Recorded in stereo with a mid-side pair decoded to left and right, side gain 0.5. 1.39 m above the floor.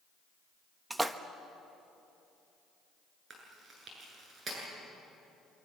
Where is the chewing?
45° right, 9 m.